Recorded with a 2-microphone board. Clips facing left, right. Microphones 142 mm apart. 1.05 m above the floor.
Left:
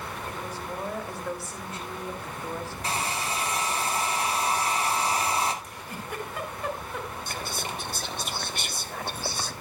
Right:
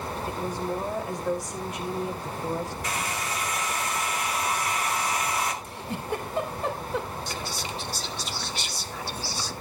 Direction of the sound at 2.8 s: 30° left (ahead or behind).